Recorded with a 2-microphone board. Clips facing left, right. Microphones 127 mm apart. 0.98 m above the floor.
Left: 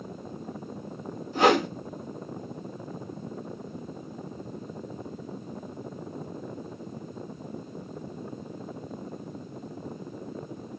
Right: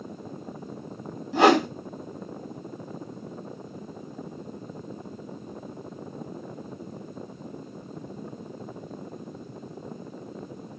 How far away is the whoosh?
About 1.7 m.